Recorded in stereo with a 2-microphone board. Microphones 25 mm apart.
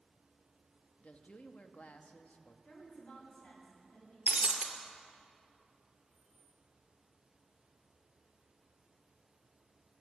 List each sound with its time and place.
1.0 s a woman speaking: 70° left (ahead or behind), 1.1 m
2.6 s a woman speaking: 75° left (ahead or behind), 6.5 m
4.3 s breaking glass: 65° right (ahead or behind), 1.8 m
6.1 s keys jangling: 15° right (ahead or behind), 6.5 m